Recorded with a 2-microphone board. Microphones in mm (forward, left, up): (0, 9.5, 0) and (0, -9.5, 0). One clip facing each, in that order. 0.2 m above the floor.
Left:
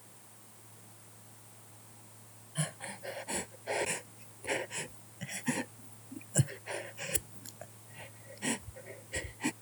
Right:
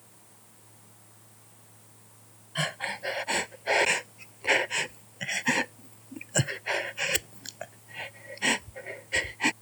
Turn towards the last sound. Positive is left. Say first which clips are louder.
# right 9 dB
turn(degrees=-40)  # may be behind; listen again after turning